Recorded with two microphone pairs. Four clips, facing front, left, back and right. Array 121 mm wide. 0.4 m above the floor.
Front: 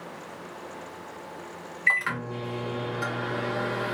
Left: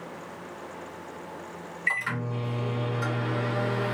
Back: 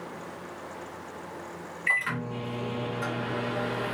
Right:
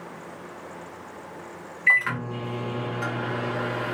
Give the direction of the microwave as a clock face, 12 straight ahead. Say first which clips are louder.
Right 6 dB, front 2 dB; 1 o'clock.